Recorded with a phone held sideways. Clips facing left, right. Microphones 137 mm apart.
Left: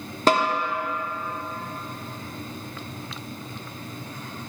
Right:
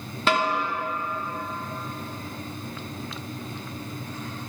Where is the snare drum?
40° left (ahead or behind), 0.8 m.